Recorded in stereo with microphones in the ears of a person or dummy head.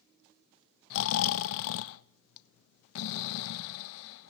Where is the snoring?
65° left (ahead or behind), 0.8 m.